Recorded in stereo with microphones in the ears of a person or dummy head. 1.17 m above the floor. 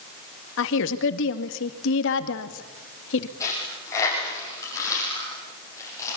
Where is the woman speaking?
65° left (ahead or behind), 2 m.